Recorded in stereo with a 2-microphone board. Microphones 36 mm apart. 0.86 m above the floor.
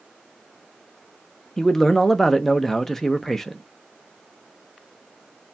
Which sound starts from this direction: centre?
A man speaking, at 1.6 s.